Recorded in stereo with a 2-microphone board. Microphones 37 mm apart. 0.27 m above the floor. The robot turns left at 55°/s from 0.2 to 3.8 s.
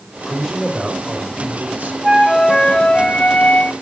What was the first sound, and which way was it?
A man speaking, 20° left.